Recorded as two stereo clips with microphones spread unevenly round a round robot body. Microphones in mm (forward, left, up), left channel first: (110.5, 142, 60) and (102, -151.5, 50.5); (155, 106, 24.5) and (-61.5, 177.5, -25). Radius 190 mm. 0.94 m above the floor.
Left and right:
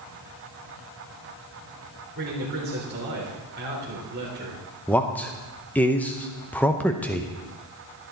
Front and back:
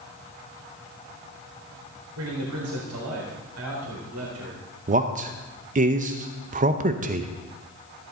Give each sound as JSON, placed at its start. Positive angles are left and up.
{"t": 2.1, "sound": "a man speaking", "azimuth_deg": -155, "distance_m": 3.5}
{"t": 4.9, "sound": "a man speaking", "azimuth_deg": 175, "distance_m": 0.7}